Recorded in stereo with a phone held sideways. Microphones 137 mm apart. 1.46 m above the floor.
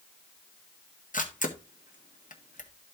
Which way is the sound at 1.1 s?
65° left (ahead or behind).